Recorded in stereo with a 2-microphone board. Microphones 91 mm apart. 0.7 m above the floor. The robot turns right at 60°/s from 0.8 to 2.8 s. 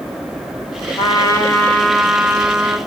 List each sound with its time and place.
1.0 s a trumpet: 115° left, 2.5 m; by 2.8 s 135° right, 2.5 m